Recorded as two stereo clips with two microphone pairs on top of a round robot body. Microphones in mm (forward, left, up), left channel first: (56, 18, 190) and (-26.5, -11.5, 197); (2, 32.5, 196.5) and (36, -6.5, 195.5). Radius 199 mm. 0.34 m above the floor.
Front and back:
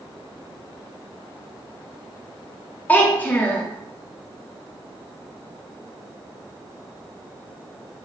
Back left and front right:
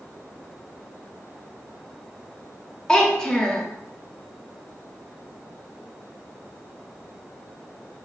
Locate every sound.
2.9 s a child speaking: 60° left, 0.7 m